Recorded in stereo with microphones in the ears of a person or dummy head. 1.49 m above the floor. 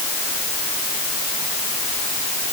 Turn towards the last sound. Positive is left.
No sound to turn to.